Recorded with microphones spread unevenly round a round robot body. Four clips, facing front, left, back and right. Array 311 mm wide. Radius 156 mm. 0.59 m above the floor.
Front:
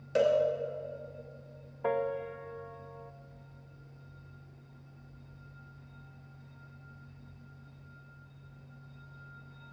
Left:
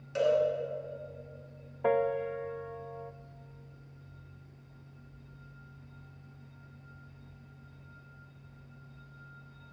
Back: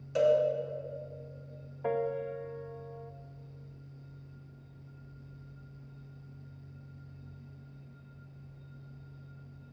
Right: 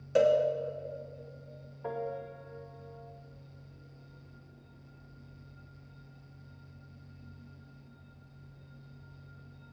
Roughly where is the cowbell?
Ahead right.